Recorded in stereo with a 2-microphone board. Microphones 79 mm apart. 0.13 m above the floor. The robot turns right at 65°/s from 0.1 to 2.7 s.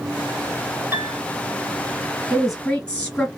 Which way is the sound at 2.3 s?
5° right (ahead or behind).